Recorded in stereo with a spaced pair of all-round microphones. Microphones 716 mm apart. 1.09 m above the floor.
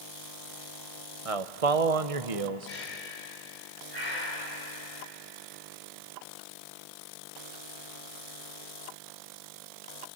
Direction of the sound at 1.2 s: 50° right (ahead or behind).